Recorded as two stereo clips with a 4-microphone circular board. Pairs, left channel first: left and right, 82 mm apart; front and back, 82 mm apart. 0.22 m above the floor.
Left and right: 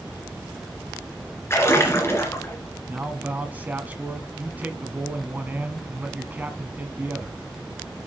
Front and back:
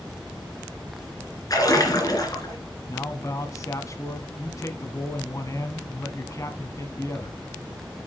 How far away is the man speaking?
About 1.4 m.